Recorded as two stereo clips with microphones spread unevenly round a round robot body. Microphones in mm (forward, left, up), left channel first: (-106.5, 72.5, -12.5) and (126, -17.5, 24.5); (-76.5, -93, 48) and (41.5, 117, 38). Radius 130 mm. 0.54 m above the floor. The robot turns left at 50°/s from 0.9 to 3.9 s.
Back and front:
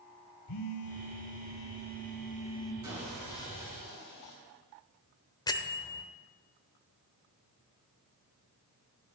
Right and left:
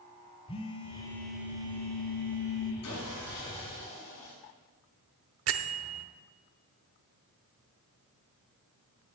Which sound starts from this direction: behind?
A phone buzzing, at 0.5 s.